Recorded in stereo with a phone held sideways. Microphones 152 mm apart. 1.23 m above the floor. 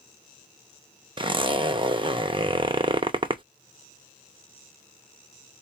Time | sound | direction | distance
1.2 | a zipper | 35° right (ahead or behind) | 0.6 m